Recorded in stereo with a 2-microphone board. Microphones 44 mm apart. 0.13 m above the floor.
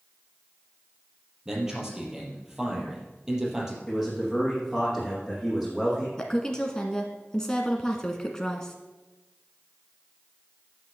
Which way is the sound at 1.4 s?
10° right (ahead or behind).